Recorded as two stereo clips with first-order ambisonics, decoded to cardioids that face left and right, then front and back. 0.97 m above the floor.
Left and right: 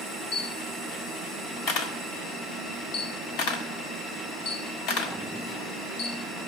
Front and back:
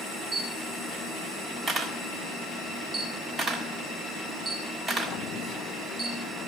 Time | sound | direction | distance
0.3 | a camera shutter | 115° left | 1.7 m